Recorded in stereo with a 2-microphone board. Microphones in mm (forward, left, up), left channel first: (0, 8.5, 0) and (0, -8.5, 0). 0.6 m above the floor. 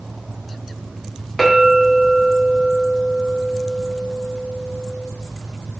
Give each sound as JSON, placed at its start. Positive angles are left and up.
{"t": 1.4, "sound": "a clink", "side_deg": -5, "distance_m": 0.8}